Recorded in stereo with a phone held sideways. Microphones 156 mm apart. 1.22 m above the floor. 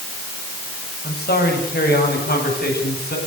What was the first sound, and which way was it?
A man speaking, 85° left.